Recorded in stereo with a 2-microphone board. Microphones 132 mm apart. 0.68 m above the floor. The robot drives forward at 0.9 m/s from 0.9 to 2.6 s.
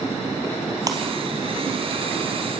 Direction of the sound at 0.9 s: 30° right (ahead or behind).